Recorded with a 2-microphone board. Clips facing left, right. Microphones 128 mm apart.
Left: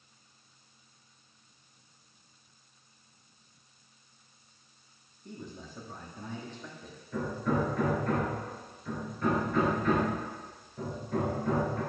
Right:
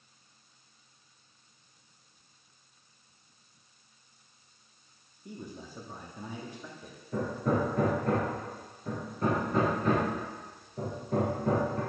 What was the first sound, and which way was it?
A man speaking, 10° right (ahead or behind).